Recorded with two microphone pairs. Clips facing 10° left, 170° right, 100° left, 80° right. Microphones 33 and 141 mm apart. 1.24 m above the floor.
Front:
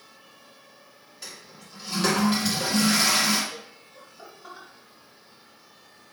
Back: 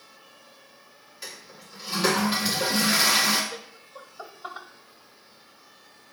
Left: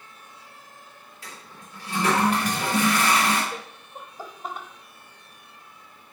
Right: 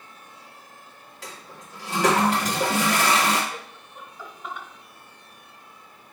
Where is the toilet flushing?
85° right, 1.9 m.